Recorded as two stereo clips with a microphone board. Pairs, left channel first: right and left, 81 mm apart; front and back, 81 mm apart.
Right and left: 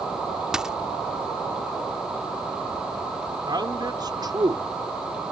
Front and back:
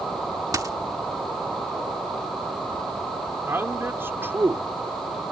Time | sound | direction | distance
0.5 | a dropped coin | 170° left | ?
3.5 | a man speaking | 120° left | ?